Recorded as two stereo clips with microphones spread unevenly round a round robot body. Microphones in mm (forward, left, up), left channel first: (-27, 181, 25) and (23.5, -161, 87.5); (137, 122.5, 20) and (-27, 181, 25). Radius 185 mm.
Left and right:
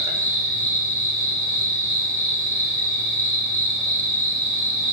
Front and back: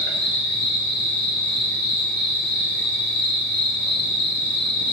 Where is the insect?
Straight ahead, 0.9 m.